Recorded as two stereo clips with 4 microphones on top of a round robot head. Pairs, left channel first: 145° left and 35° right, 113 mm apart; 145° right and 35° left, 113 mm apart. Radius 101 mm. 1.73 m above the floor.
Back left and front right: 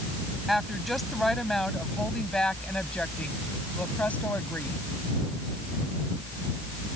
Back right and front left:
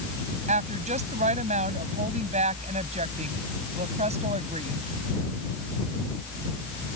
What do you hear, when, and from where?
0.5 s a woman speaking: 50° left; by 4.8 s 65° left